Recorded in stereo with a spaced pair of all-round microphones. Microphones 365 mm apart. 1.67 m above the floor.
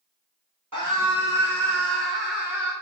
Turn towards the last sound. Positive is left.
turn(degrees=-25)  # may be behind; listen again after turning